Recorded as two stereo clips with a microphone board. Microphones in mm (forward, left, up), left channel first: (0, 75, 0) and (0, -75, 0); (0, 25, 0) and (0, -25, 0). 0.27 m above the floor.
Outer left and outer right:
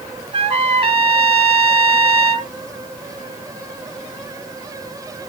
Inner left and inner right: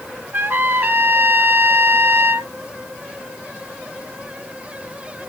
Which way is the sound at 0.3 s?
40° right (ahead or behind).